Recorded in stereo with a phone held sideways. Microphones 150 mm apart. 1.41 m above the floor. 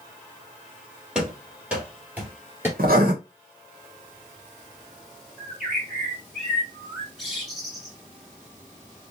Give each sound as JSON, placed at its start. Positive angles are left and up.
{"t": 1.1, "sound": "running footsteps", "side_deg": -5, "distance_m": 2.5}
{"t": 2.8, "sound": "writing", "side_deg": -80, "distance_m": 1.3}
{"t": 5.4, "sound": "a bird", "side_deg": 0, "distance_m": 2.5}